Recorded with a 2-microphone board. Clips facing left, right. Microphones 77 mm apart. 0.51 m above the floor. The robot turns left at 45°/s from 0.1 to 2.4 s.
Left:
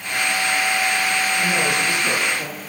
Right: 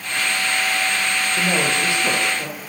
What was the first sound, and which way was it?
A man speaking, 130° right.